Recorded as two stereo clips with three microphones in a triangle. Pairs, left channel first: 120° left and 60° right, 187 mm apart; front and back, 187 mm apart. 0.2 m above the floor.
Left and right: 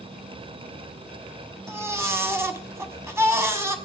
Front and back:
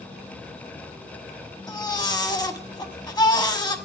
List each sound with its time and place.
1.7 s a baby crying: 10° right, 1.1 m